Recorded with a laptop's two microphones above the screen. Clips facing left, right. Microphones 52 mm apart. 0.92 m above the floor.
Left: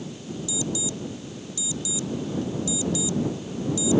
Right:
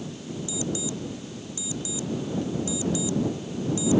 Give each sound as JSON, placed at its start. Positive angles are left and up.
{"t": 0.5, "sound": "an alarm clock", "side_deg": -35}